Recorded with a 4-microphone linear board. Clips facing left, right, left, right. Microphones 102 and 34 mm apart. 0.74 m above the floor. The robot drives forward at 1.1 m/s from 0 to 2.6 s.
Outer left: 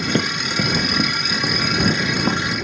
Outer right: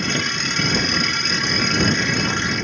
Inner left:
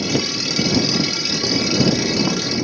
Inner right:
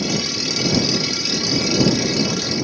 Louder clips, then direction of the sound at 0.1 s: Outer left 3 dB, inner left 2 dB; 40° left (ahead or behind).